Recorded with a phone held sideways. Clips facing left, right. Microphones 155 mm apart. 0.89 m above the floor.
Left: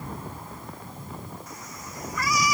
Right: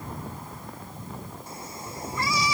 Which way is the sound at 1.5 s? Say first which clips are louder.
Right 2 dB; 30° right (ahead or behind).